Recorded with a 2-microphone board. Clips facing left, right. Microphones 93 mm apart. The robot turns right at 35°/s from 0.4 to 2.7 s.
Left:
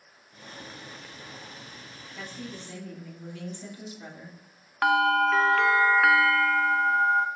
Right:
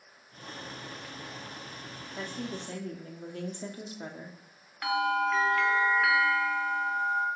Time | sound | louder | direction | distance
2.2 | a woman speaking | right 3 dB | 40° right (ahead or behind) | 1.2 m
4.8 | a bell | left 6 dB | 60° left (ahead or behind) | 0.5 m